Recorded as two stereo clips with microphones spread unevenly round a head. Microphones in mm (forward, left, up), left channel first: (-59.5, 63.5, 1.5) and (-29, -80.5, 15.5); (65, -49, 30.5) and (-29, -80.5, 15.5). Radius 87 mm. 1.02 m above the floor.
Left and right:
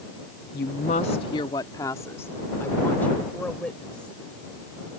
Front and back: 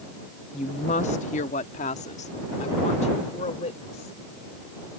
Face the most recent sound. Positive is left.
turn(degrees=15)